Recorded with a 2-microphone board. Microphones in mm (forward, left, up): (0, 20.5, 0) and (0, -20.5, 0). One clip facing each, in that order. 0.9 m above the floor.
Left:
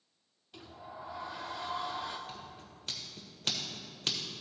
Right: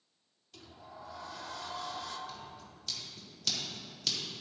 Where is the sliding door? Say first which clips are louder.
Left 3 dB; 20° left (ahead or behind), 0.6 m.